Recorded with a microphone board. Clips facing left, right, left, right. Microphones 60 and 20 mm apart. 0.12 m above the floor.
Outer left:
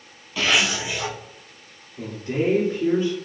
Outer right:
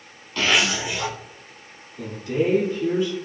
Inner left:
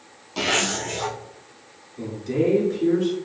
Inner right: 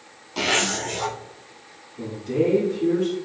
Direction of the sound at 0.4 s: 5° left (ahead or behind).